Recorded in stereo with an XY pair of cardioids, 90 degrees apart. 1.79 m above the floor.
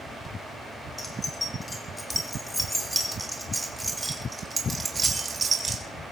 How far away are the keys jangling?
About 5 m.